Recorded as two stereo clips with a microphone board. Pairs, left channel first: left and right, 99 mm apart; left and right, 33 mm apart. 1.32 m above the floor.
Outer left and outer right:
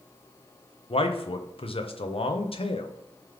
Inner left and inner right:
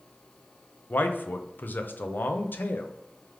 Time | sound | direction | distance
0.9 | a man speaking | 70° left (ahead or behind) | 0.6 m